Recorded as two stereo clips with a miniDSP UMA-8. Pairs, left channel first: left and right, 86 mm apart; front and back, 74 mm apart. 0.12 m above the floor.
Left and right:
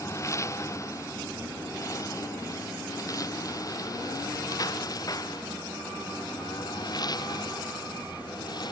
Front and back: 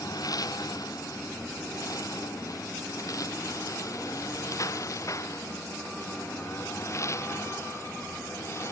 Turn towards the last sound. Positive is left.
turn(degrees=55)